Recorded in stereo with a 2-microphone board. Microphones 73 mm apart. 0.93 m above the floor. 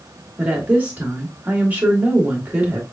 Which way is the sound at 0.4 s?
20° right (ahead or behind).